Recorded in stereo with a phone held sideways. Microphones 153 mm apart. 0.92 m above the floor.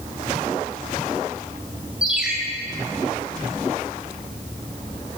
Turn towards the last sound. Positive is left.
turn(degrees=-5)  # may be behind; listen again after turning